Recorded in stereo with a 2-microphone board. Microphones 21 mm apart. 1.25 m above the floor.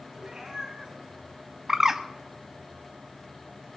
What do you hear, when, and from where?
0.2 s a cat meowing: 40° right (ahead or behind), 2.5 m
1.7 s a bird: 20° right (ahead or behind), 0.6 m